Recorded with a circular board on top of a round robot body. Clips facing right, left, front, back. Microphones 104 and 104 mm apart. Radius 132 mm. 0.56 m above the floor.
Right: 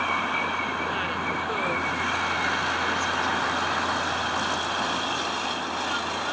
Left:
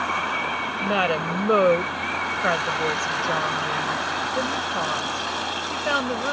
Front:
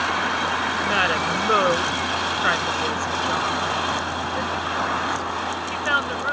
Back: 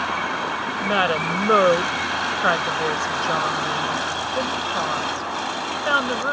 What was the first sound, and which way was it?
A woman speaking, 115° left.